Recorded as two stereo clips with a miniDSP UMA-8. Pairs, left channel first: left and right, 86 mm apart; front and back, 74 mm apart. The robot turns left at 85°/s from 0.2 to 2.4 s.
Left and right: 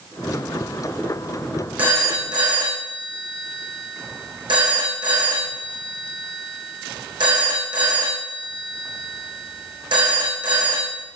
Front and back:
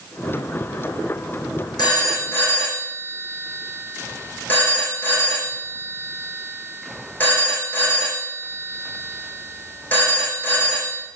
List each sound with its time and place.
1.8 s a phone ringing: 20° right, 3.5 m; by 11.0 s 70° right, 3.5 m